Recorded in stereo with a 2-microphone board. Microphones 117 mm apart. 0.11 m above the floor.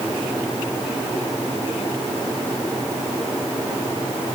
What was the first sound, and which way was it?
Only background noise.